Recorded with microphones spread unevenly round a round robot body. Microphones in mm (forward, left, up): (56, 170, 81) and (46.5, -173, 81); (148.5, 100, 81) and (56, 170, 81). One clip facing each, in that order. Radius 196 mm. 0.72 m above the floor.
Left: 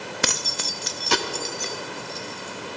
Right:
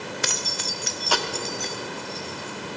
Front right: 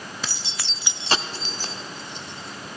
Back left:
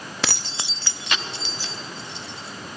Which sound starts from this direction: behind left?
Keys jangling, at 0.2 s.